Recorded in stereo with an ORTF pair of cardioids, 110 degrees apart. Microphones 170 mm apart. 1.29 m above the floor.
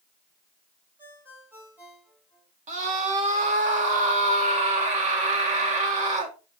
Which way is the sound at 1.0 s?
10° right.